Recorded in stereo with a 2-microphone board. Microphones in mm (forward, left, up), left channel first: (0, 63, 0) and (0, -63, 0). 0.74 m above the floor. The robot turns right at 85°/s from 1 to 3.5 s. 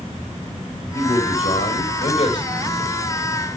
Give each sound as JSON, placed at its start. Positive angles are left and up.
{"t": 0.9, "sound": "a man speaking", "azimuth_deg": 25, "distance_m": 4.0}